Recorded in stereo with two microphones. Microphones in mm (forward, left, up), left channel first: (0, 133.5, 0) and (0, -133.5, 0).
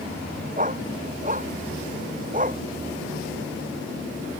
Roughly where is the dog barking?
Right.